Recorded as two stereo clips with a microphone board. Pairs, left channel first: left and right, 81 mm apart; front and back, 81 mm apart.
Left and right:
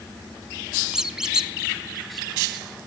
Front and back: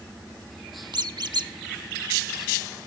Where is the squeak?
170° right, 0.5 m.